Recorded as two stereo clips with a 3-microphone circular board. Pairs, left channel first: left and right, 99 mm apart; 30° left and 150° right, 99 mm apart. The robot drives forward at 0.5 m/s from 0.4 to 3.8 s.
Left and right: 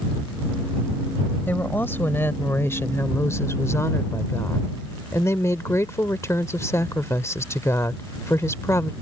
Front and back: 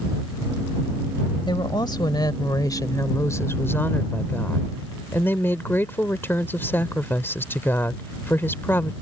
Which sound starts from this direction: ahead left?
A woman speaking, at 1.5 s.